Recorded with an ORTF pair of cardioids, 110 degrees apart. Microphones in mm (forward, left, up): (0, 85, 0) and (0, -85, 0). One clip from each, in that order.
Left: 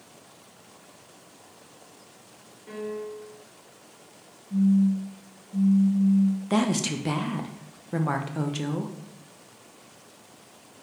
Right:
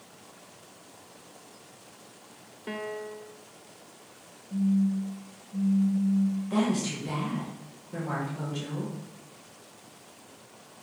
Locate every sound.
2.7 s a piano: 55° right, 0.9 m
4.5 s a phone buzzing: 25° left, 2 m
6.5 s a woman speaking: 60° left, 1.1 m